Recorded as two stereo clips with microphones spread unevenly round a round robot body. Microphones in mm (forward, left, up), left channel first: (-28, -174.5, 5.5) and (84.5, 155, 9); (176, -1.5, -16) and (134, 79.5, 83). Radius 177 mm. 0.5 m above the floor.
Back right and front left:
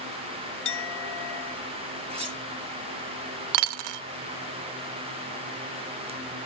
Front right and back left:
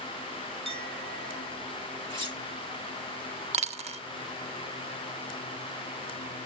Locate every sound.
0.7 s a clink: 160° right, 0.8 m
2.1 s cutlery clinking: straight ahead, 7.5 m
3.5 s a dropped coin: 90° left, 0.5 m